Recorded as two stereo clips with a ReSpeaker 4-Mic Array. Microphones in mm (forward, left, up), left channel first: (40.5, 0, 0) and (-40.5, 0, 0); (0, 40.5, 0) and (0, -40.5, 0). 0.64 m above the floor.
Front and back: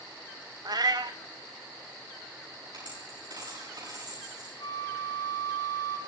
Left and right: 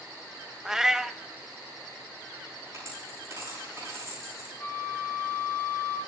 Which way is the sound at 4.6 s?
20° left.